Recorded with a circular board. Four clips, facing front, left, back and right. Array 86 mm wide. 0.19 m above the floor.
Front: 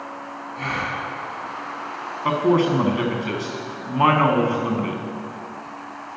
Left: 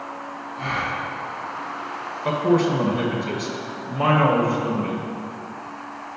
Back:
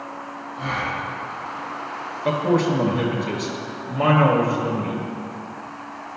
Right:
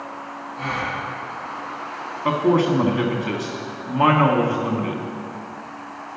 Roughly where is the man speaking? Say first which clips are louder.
Right 1 dB, front 2 dB; ahead right.